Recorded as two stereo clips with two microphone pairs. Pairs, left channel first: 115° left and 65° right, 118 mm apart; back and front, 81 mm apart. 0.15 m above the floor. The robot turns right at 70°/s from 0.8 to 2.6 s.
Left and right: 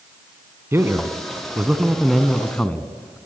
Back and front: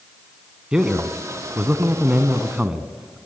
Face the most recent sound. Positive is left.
turn(degrees=60)